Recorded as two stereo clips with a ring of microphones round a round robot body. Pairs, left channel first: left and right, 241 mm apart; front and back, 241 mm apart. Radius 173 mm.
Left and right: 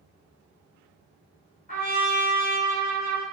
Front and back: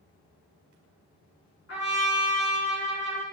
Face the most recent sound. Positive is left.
turn(degrees=30)